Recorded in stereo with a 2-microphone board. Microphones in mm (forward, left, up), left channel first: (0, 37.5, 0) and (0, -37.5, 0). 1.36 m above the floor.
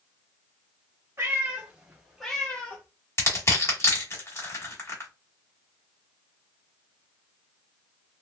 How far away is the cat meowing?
About 1.1 m.